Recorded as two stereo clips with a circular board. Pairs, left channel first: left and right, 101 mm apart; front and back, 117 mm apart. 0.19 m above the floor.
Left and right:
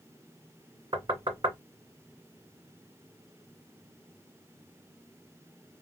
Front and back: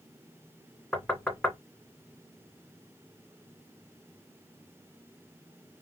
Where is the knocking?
80° right, 1.8 m.